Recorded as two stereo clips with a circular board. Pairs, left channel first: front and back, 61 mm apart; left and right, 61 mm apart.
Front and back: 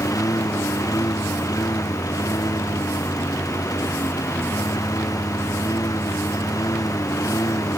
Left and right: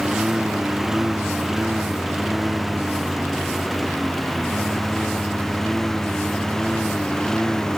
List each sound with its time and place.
0.0 s a lawn mower: 10° right; by 7.8 s 10° left